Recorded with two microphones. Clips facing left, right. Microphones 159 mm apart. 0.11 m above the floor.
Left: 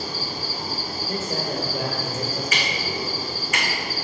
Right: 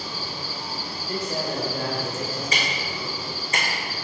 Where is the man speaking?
5° left (ahead or behind), 1.9 m.